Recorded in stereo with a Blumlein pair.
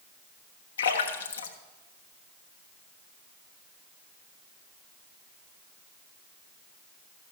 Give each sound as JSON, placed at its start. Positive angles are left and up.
{"t": 0.8, "sound": "a splash", "azimuth_deg": 65, "distance_m": 1.1}